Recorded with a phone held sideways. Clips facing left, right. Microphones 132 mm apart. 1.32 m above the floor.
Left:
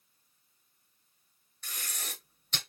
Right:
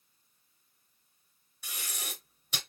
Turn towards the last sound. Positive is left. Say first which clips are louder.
# right 1 dB
turn(degrees=-10)  # may be behind; listen again after turning